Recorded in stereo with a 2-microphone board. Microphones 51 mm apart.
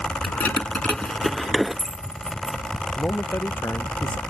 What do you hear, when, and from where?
0.2 s keys jangling: 45° left (ahead or behind); by 2.6 s 25° right (ahead or behind)
3.0 s a man speaking: 35° left (ahead or behind)